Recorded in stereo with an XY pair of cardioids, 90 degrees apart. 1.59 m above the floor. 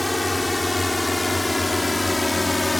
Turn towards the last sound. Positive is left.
turn(degrees=20)